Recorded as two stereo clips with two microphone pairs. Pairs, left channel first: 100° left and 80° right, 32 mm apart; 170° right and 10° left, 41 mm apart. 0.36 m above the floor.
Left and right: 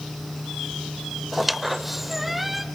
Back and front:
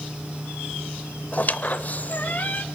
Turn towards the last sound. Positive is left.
turn(degrees=-160)